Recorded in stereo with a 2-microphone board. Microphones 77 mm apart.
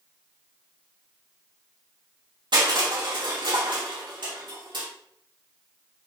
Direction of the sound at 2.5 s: 85° right.